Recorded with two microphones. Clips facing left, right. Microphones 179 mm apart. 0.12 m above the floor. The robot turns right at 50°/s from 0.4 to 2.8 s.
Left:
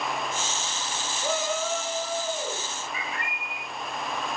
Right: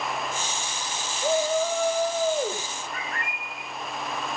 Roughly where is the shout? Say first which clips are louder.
Right 6 dB; behind right.